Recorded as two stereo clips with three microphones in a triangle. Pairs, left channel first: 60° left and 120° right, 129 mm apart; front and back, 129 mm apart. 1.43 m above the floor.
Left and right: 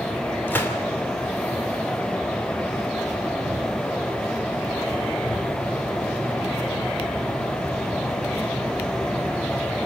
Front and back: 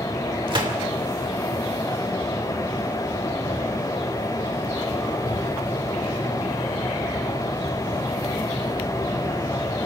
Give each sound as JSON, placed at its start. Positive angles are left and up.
{"t": 0.5, "sound": "a gunshot", "azimuth_deg": 135, "distance_m": 2.5}